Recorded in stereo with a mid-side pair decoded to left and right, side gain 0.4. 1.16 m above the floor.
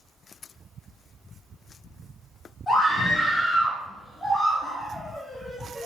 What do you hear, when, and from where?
2.7 s a scream: 30° left, 2.5 m; by 5.9 s 15° right, 0.8 m